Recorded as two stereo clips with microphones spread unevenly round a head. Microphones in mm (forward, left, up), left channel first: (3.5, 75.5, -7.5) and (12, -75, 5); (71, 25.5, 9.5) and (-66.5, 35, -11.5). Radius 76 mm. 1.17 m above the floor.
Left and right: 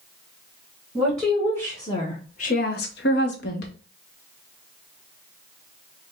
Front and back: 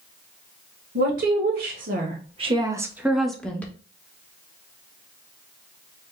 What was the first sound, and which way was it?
A woman speaking, straight behind.